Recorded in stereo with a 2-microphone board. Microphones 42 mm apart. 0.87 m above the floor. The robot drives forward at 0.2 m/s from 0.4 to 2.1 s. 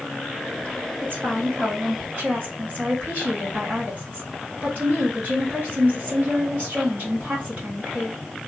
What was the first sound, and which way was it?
A woman speaking, 55° right (ahead or behind).